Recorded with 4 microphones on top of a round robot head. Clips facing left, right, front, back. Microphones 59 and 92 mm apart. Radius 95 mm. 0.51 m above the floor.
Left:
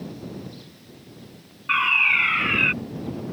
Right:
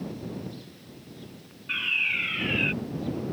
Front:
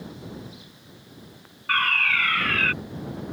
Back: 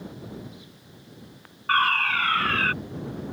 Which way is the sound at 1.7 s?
130° left.